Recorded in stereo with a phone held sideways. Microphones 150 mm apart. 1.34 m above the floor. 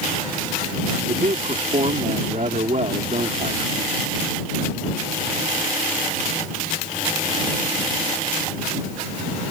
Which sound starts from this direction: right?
A man speaking, at 1.1 s.